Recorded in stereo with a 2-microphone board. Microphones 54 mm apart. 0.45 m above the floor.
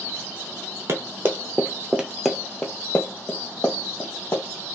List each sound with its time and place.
0.9 s running footsteps: 55° right (ahead or behind), 0.8 m; by 4.5 s 50° left (ahead or behind), 1.3 m